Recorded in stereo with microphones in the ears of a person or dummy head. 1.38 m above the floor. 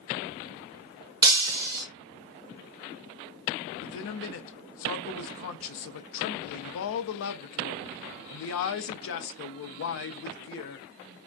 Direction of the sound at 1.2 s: 20° right (ahead or behind).